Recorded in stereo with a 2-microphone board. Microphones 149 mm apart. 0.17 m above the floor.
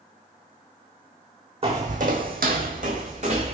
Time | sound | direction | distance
1.6 | footsteps | 45° right (ahead or behind) | 0.7 m